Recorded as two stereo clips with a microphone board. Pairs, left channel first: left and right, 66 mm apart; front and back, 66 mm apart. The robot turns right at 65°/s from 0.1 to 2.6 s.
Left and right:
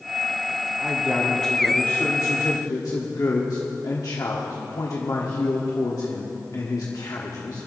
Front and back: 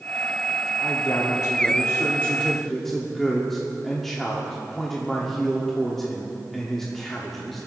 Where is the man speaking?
35° right, 1.2 m; by 7.7 s 85° left, 1.2 m.